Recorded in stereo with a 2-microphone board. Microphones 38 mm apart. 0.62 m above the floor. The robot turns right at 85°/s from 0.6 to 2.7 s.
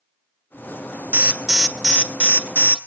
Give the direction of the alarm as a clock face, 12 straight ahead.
1 o'clock.